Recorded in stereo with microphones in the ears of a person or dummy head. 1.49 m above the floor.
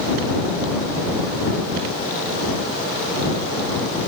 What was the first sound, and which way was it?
Only background noise.